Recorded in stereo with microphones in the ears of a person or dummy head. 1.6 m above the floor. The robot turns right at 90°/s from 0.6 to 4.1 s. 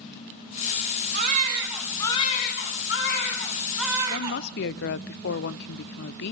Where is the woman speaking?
60° left (ahead or behind), 0.8 m; by 6.3 s 65° left (ahead or behind), 0.8 m.